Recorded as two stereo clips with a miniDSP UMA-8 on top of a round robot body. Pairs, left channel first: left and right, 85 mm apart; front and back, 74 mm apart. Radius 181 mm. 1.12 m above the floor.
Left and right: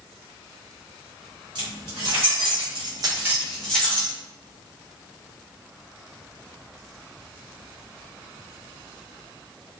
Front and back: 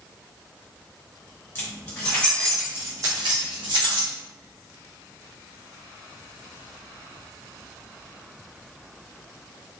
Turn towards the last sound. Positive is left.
turn(degrees=165)